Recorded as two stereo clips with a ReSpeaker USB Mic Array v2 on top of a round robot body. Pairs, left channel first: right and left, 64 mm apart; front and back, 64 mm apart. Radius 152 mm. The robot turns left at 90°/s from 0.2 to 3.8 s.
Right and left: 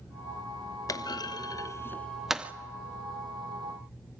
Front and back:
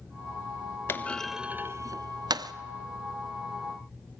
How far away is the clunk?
About 0.6 m.